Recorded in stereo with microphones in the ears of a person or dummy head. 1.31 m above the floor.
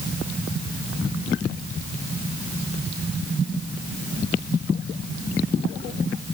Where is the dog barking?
No dog barking in this recording.